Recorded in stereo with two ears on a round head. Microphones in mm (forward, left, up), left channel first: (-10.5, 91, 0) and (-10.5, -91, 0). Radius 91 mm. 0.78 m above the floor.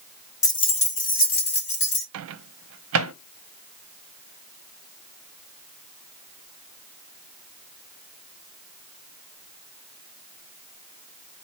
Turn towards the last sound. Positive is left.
turn(degrees=-75)  # may be behind; listen again after turning